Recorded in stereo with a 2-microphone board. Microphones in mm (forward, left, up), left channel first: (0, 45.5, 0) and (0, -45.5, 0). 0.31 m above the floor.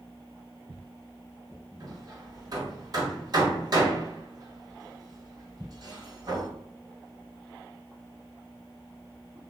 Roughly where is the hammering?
Right.